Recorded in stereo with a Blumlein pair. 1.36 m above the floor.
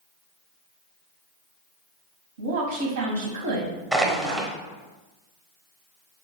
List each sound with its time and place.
2.4 s a woman speaking: 60° right, 1.0 m
3.9 s crushing: 10° right, 0.9 m